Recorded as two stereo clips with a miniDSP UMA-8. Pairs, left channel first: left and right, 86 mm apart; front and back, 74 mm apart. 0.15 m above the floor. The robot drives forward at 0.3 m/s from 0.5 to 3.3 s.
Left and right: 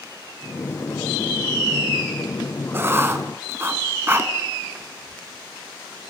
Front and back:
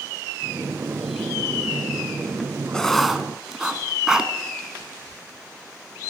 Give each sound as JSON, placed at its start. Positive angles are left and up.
{"t": 2.7, "sound": "writing", "azimuth_deg": -70, "distance_m": 0.5}